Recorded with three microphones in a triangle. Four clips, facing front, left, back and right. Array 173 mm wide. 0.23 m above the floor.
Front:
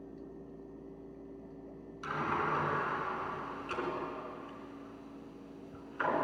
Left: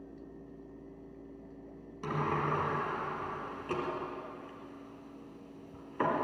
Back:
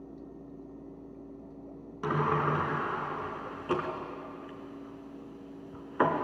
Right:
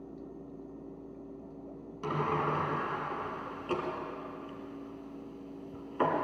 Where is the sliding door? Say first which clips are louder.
Right 2 dB, back 6 dB; 175° right, 3 m.